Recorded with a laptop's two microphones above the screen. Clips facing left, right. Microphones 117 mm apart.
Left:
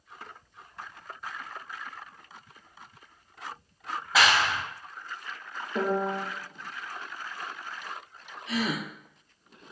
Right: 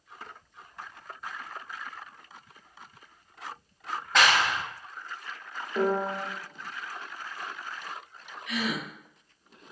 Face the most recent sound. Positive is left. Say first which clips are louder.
# left 2 dB
turn(degrees=30)  # may be behind; listen again after turning